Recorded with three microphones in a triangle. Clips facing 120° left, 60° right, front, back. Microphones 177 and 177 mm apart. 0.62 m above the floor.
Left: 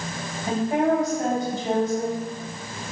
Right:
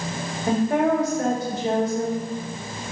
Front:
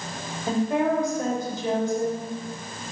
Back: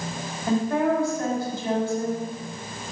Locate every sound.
0.5 s a woman speaking: 70° right, 2.5 m